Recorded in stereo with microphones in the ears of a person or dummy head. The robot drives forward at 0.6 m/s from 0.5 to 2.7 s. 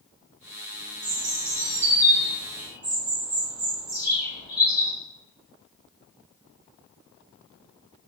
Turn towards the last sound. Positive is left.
turn(degrees=-10)  # may be behind; listen again after turning